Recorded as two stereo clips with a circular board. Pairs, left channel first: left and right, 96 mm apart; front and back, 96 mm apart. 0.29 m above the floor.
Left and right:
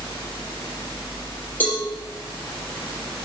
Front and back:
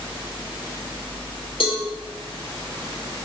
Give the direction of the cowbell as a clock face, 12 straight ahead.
11 o'clock.